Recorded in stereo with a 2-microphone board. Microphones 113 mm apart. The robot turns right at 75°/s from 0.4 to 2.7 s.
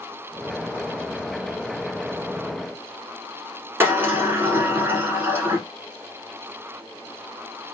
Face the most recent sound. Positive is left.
turn(degrees=-20)  # may be behind; listen again after turning